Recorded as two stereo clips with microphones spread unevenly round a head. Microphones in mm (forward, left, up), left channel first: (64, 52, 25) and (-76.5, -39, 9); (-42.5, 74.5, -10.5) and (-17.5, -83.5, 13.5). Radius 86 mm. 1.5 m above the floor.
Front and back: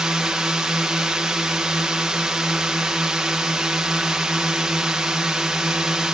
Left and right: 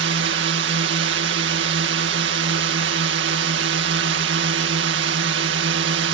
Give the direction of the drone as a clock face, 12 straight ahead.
2 o'clock.